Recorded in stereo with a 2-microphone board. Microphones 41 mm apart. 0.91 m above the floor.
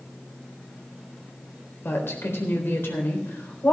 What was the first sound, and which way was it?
A woman speaking, 75° left (ahead or behind).